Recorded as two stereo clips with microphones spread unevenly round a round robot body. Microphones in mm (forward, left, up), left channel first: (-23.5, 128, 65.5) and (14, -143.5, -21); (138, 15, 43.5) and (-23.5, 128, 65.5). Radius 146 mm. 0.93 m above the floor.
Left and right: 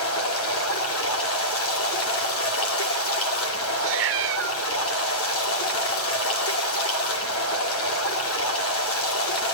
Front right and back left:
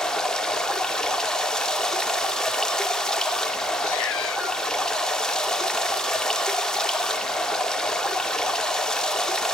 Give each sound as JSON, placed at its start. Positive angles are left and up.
{"t": 0.0, "sound": "running water", "azimuth_deg": 50, "distance_m": 2.5}
{"t": 3.8, "sound": "a cat meowing", "azimuth_deg": -30, "distance_m": 0.9}